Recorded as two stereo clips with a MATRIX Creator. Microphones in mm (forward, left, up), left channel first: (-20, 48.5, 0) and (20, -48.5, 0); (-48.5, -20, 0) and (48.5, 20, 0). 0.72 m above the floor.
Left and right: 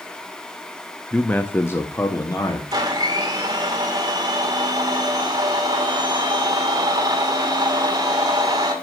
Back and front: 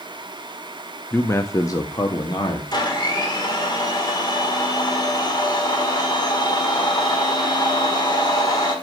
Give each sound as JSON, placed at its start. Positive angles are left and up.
{"t": 1.1, "sound": "a man speaking", "azimuth_deg": 170, "distance_m": 0.6}
{"t": 2.7, "sound": "a blender", "azimuth_deg": -115, "distance_m": 1.9}